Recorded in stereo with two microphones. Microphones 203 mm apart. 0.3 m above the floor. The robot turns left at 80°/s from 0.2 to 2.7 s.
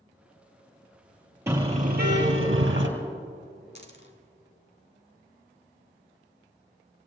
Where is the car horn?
15° right, 3 m; by 2.9 s 110° right, 3 m.